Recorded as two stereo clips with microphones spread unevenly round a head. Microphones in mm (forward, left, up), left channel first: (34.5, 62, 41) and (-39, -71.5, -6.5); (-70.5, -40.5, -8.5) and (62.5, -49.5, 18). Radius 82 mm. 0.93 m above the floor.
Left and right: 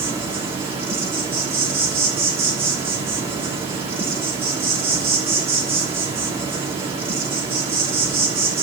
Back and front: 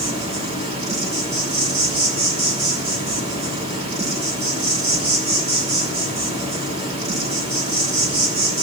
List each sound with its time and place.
0.0 s an insect: 50° right, 5.5 m